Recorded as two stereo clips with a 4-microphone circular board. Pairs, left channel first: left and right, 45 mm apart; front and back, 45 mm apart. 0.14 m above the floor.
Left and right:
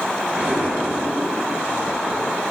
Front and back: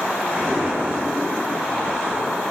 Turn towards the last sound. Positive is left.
turn(degrees=-155)